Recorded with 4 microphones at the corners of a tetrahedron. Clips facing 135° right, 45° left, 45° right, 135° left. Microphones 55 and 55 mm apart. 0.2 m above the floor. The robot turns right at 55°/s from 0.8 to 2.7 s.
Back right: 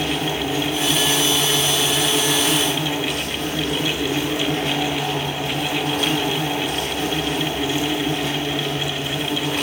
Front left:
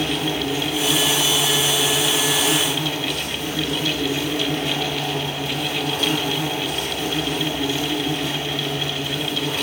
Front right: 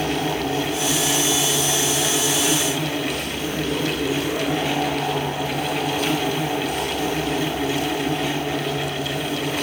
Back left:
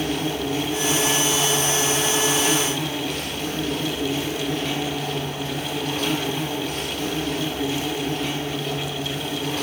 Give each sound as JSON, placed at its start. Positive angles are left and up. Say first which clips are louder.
{"t": 0.0, "sound": "an insect", "louder": "even, front right 2 dB", "azimuth_deg": 135, "distance_m": 3.0}